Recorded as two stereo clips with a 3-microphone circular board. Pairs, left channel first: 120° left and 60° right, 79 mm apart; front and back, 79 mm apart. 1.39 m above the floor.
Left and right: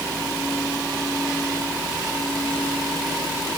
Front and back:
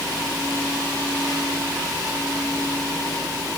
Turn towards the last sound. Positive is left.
No sound to turn to.